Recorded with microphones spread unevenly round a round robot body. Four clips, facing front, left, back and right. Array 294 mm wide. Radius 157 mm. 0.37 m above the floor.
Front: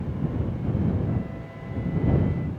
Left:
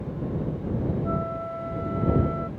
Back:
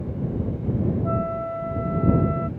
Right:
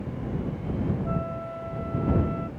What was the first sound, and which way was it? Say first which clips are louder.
A flute: left 2 dB, back 7 dB; 170° left.